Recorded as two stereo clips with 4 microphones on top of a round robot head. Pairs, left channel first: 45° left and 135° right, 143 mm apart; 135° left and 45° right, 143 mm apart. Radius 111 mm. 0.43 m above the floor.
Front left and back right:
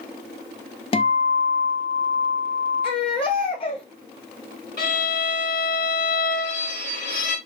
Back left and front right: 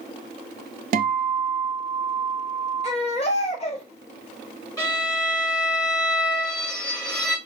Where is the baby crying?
95° left, 1.5 m.